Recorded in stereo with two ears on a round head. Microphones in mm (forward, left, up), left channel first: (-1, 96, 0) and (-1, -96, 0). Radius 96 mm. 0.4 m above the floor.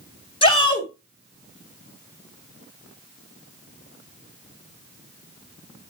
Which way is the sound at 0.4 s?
25° left (ahead or behind).